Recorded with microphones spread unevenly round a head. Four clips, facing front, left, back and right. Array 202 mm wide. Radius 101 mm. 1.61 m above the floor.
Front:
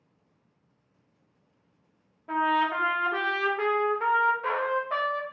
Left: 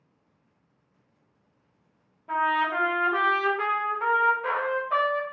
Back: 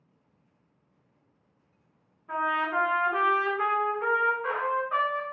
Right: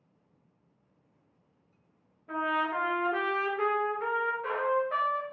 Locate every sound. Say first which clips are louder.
2.3 s a trumpet: left 5 dB, front 3 dB; straight ahead, 1.2 m